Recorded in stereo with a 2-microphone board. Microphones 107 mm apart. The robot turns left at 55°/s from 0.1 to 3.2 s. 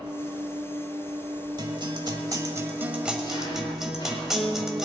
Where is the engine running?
55° right, 4 m; by 4.8 s 135° left, 4 m.